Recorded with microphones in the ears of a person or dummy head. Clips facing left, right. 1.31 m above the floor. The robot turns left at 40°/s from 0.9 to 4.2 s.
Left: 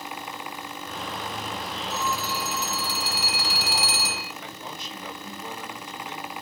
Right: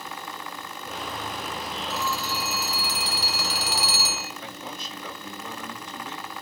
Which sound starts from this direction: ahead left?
A phone ringing, at 1.9 s.